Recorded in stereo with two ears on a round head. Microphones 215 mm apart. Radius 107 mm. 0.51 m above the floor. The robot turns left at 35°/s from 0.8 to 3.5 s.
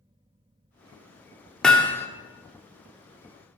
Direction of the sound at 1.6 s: 5° left (ahead or behind).